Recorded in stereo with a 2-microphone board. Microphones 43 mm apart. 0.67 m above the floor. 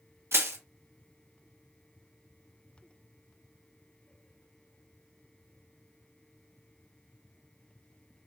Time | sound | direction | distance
0.3 | crushing | 75° right (ahead or behind) | 1.1 m